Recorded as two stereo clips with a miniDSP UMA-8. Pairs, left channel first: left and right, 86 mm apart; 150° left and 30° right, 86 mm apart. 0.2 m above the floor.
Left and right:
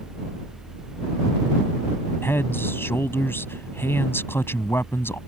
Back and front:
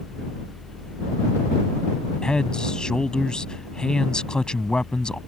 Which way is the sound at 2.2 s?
80° left.